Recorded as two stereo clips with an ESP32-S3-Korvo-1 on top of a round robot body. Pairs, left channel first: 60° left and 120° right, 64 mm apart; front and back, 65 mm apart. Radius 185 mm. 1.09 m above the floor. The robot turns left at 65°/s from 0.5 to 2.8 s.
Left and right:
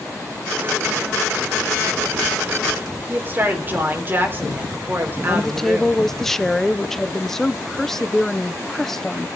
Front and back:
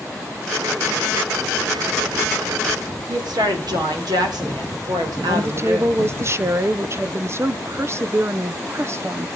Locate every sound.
3.1 s a woman speaking: straight behind, 3.5 m
5.3 s a woman speaking: 145° left, 0.9 m